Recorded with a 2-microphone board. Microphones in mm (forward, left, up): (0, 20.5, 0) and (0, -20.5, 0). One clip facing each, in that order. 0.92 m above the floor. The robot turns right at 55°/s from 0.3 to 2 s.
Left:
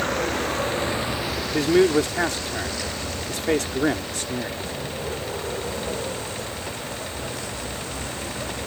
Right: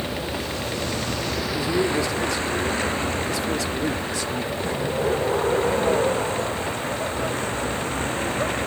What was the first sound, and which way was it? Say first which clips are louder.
A vehicle: left 4 dB; 65° left (ahead or behind).